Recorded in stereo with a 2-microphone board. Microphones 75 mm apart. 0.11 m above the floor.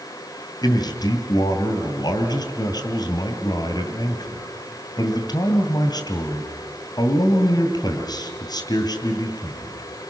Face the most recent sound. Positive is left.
turn(degrees=55)  # may be behind; listen again after turning